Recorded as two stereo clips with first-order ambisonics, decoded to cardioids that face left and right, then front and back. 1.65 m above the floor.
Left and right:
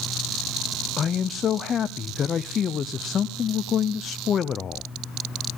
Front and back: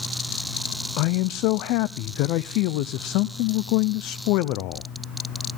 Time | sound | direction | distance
1.0 | a man speaking | 30° left | 0.7 m